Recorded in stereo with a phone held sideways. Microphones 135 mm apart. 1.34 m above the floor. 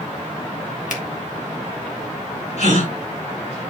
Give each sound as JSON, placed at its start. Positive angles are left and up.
{"t": 0.9, "sound": "a finger snap", "side_deg": 70, "distance_m": 1.9}
{"t": 2.6, "sound": "a gasp", "side_deg": 60, "distance_m": 5.5}